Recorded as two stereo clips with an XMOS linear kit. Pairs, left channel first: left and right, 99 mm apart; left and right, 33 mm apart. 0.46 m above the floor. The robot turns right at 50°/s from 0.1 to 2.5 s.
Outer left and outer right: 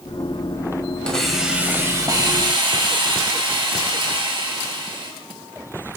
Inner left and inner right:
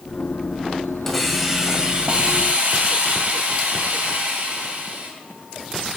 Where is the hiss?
170° left, 2 m; by 5.1 s 120° right, 2 m.